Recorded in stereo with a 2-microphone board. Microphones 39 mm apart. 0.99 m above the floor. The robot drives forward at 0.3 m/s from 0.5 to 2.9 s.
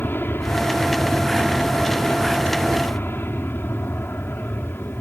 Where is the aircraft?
60° left (ahead or behind).